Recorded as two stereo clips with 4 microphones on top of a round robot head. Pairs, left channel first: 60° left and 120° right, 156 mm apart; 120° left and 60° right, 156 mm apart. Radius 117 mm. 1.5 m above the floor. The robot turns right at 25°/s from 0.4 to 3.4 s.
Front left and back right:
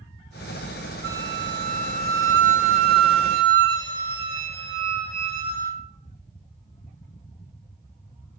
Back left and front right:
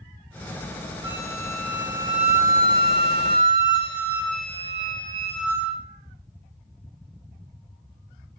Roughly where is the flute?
Behind right.